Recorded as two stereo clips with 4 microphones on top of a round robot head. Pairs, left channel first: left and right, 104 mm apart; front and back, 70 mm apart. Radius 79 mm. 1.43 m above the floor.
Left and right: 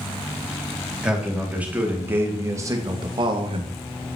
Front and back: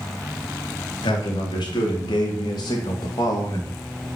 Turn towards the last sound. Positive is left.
turn(degrees=-65)